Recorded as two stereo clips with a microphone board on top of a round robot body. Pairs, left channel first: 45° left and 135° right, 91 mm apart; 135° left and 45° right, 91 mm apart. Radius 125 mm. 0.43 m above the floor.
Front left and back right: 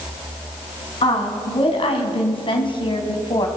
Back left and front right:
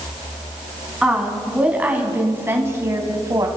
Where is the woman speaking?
35° left, 4 m; by 3.5 s 5° left, 3.5 m.